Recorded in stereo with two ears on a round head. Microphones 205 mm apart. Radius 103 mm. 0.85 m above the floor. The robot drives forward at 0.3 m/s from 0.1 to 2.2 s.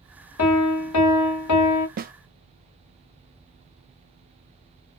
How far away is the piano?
About 0.9 m.